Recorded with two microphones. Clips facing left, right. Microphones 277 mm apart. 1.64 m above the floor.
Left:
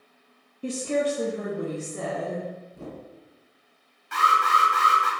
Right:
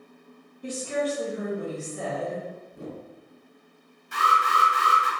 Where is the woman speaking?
35° left (ahead or behind), 0.5 m; by 2.5 s 70° left (ahead or behind), 1.4 m.